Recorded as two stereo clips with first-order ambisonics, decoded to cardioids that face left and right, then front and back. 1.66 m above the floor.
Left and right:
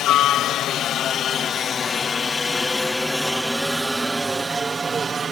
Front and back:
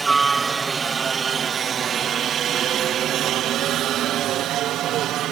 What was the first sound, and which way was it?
A helicopter, 110° left.